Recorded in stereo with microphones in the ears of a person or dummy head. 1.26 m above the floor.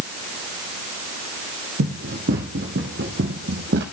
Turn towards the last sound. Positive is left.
turn(degrees=-60)  # may be behind; listen again after turning